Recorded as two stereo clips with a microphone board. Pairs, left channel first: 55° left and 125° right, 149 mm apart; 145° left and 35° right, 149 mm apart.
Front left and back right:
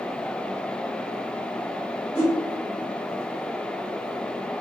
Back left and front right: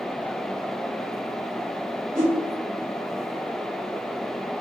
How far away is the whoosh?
About 1.6 m.